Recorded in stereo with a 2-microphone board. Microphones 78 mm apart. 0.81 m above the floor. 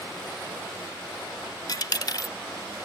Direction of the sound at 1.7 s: 55° left (ahead or behind).